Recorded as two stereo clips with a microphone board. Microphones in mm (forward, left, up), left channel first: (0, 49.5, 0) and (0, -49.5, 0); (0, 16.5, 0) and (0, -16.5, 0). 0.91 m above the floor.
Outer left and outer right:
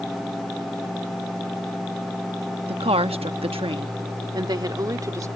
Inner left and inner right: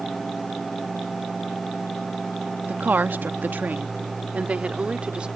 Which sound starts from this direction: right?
A woman speaking, at 2.7 s.